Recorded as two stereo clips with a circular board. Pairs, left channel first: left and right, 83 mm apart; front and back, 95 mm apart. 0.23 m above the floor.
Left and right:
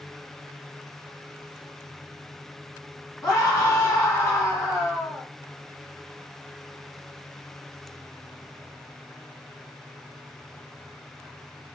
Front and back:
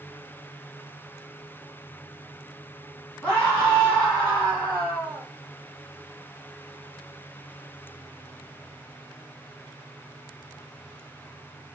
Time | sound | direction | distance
3.2 | a scream | 70° left | 1.8 m